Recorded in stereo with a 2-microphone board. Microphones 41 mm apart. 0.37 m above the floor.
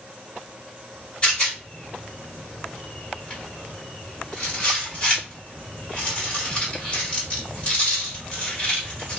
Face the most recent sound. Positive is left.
turn(degrees=30)  # may be behind; listen again after turning